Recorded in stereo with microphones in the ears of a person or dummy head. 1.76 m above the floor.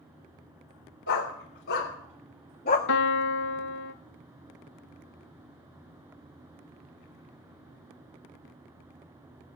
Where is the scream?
No scream in this recording.